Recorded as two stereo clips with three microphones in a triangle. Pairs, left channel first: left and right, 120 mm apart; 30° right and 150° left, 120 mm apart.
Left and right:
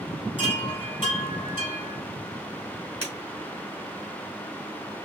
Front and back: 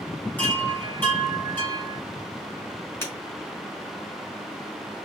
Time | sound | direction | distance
0.4 | a chime | 45° left | 2.5 m
3.0 | breaking glass | 40° left | 2.5 m